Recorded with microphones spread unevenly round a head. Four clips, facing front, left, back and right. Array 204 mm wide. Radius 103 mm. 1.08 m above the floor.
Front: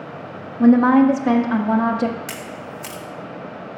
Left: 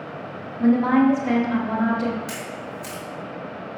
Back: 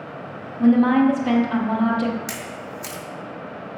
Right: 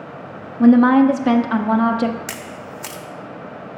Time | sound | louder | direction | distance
0.6 | a woman speaking | right 6 dB, front 3 dB | 70° right | 0.7 m
2.3 | a camera shutter | even, front 1 dB | 95° right | 0.9 m